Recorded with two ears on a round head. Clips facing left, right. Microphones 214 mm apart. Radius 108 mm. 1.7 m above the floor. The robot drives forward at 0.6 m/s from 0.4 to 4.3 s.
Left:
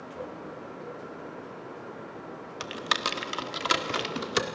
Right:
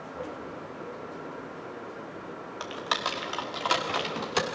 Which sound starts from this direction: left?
Typing on a keyboard, at 2.6 s.